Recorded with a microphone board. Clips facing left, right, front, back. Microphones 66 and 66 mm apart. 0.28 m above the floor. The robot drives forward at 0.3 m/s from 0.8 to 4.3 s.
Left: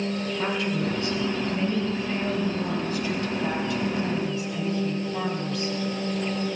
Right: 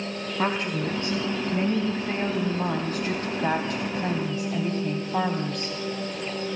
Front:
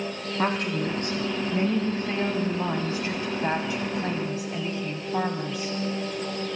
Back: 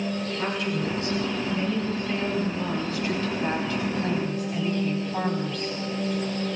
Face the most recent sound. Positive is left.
turn(degrees=-75)